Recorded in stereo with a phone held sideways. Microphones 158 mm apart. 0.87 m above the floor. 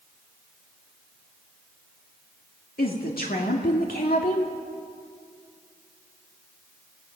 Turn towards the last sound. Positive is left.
turn(degrees=70)  # may be behind; listen again after turning